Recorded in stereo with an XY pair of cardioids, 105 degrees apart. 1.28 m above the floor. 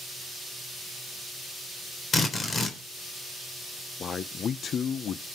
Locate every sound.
2.1 s a drill: 40° left, 3.5 m
4.0 s a man speaking: 55° left, 0.7 m